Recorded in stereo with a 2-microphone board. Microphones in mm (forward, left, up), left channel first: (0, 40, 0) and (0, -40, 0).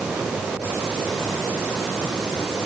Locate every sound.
Only background noise.